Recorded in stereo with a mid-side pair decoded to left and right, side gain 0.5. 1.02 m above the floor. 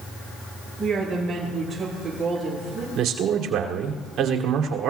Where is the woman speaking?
20° right, 9.5 m.